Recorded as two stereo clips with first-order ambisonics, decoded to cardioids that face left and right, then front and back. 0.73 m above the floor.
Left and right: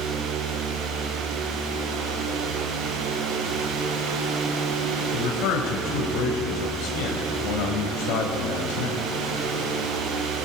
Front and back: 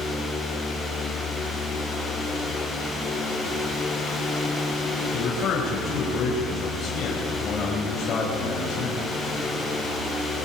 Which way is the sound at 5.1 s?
65° left.